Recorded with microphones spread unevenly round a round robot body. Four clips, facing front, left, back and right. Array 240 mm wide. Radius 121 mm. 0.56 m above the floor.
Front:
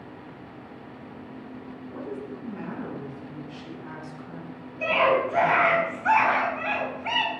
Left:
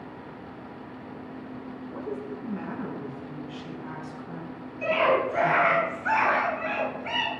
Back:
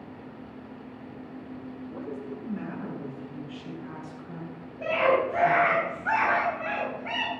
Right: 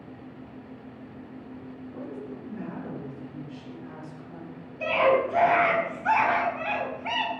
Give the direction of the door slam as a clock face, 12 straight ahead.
I don't hear a door slam.